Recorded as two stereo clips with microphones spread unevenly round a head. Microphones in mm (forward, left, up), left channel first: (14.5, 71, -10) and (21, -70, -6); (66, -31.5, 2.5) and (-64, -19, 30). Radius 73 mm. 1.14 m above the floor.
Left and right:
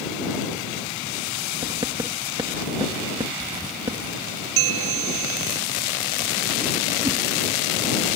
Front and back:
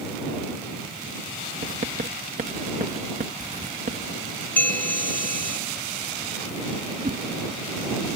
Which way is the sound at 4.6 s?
85° right.